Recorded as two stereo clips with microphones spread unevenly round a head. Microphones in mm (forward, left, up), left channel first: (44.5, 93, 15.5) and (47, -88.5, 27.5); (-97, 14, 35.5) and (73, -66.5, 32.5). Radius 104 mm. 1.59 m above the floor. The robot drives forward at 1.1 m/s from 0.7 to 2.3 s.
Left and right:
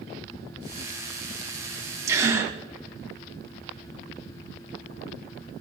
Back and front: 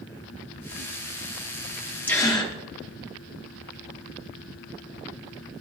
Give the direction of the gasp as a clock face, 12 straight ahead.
5 o'clock.